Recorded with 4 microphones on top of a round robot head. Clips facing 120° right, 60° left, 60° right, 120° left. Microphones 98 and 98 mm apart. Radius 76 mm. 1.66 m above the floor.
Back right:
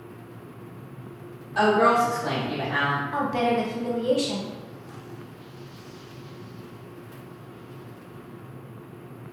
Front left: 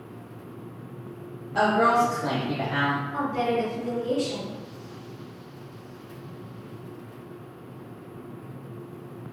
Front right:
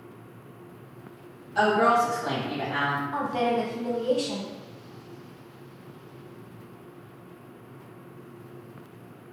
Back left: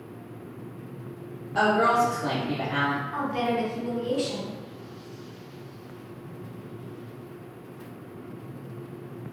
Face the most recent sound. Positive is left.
turn(degrees=-120)